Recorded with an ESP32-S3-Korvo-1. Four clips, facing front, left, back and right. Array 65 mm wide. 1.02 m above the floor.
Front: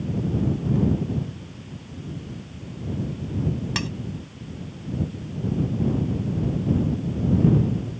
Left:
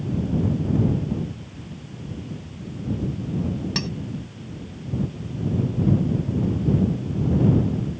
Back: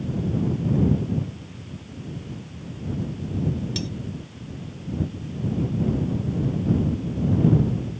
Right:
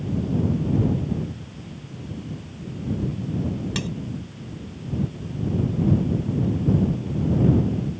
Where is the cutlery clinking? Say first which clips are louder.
Even, front 2 dB; 10° left.